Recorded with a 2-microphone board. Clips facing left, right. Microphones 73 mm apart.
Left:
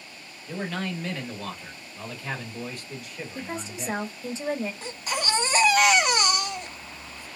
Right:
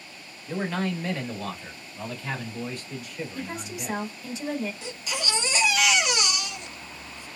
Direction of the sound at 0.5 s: 10° right (ahead or behind).